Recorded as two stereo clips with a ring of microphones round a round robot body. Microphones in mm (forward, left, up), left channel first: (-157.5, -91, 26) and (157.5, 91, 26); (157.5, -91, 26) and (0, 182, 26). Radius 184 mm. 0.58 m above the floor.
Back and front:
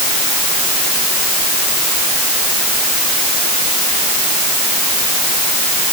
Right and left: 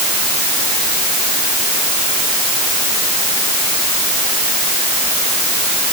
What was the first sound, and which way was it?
Only background noise.